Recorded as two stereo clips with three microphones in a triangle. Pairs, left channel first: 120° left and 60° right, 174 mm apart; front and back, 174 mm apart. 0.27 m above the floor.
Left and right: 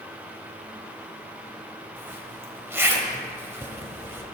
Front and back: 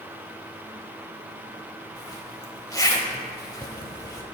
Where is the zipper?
10° right, 1.0 m.